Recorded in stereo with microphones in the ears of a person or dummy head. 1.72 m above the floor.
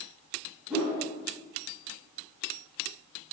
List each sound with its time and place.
0.7 s a whoosh: 5° right (ahead or behind), 0.9 m